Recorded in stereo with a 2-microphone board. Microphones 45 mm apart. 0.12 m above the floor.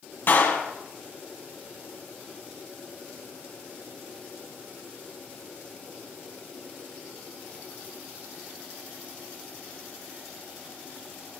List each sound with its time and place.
0.3 s a clap: 55° left (ahead or behind), 2.5 m